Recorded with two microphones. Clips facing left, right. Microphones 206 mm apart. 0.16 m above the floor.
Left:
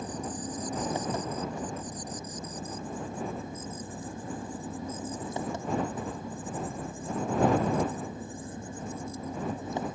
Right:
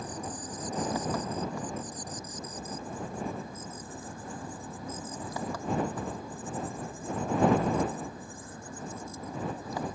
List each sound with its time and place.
0.0 s an engine running: 25° left (ahead or behind)